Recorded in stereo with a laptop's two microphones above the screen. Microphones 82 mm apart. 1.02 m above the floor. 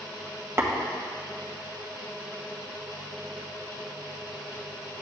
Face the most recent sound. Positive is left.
turn(degrees=-30)  # may be behind; listen again after turning